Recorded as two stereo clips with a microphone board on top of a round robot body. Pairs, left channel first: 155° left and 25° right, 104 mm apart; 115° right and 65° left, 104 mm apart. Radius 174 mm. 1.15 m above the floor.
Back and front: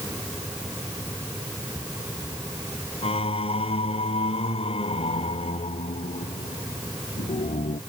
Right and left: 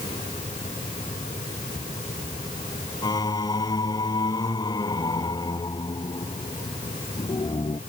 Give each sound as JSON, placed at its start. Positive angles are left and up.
{"t": 3.0, "sound": "singing", "azimuth_deg": -170}